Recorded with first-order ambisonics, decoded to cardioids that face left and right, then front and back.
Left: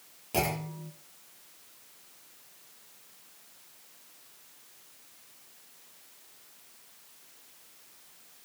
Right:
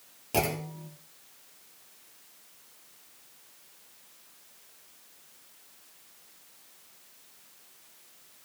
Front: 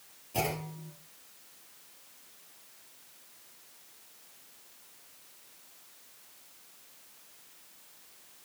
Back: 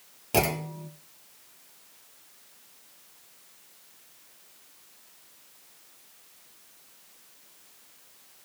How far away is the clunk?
About 1.6 m.